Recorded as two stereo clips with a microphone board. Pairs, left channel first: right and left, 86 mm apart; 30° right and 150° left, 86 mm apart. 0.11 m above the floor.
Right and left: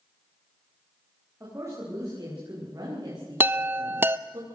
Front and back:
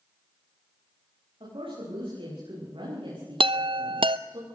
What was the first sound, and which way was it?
A woman speaking, 145° left.